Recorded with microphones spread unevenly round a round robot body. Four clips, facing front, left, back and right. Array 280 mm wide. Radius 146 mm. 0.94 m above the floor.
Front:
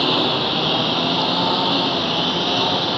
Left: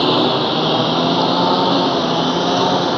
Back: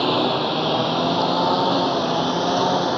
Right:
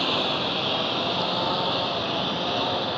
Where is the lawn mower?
85° left; by 3.0 s 90° left.